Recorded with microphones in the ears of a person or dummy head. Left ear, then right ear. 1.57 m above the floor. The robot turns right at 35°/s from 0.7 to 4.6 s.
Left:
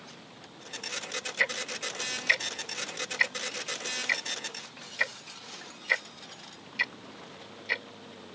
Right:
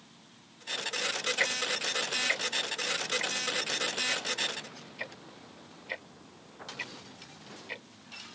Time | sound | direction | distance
1.4 | ticking | 10° left (ahead or behind) | ?